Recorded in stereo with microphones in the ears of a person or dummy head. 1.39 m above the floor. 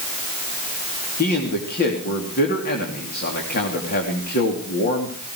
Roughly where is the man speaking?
Left.